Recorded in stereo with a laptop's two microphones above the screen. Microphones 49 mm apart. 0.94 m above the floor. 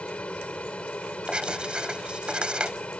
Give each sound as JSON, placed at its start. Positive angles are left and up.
{"t": 0.0, "sound": "an aircraft", "side_deg": 25}
{"t": 1.3, "sound": "writing", "side_deg": -20}